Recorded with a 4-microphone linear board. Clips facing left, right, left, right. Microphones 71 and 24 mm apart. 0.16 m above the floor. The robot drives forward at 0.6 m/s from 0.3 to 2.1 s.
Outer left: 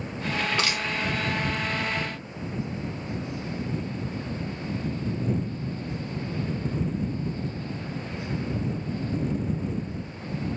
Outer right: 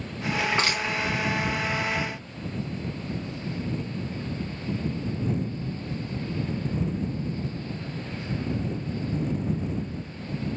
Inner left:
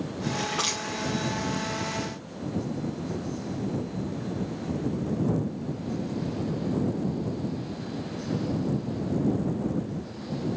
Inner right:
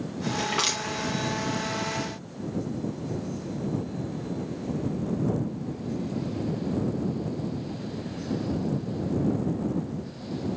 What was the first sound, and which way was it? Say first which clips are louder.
Crushing: outer right 2 dB, inner right 3 dB; 30° right (ahead or behind).